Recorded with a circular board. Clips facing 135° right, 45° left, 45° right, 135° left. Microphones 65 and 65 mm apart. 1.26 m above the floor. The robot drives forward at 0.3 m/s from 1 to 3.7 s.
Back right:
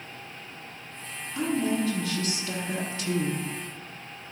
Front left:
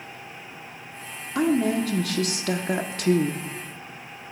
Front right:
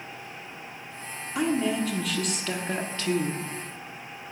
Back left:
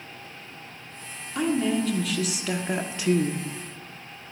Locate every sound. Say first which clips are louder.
1.4 s a woman speaking: front left 5 dB, back left 1 dB; 40° left, 1.2 m; by 3.4 s 70° left, 0.9 m